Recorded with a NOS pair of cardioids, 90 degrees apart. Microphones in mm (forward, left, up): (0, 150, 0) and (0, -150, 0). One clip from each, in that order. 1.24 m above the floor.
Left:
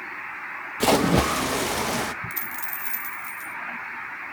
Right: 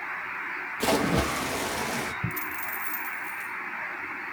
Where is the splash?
30° left, 1.1 m.